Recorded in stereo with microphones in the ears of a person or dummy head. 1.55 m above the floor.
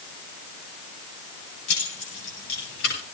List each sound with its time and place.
1.7 s keys jangling: 65° left (ahead or behind), 8.5 m